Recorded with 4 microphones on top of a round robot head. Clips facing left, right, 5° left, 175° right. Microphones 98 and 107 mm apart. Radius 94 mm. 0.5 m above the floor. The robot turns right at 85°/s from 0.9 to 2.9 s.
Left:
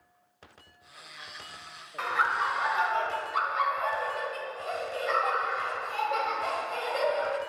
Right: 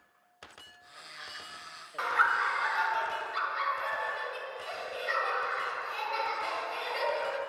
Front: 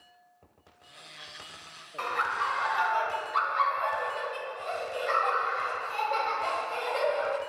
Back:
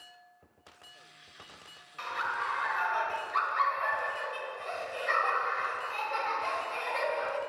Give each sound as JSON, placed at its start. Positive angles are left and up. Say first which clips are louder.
{"t": 2.0, "sound": "laughter", "louder": "even, front 4 dB", "azimuth_deg": 0, "distance_m": 1.4}